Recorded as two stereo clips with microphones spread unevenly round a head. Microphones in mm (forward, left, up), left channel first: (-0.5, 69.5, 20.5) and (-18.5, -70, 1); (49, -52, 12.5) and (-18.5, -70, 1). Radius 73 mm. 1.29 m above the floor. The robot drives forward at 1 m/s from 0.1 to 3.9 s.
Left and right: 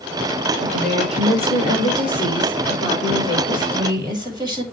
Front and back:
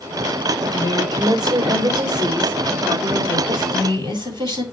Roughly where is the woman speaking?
Behind right.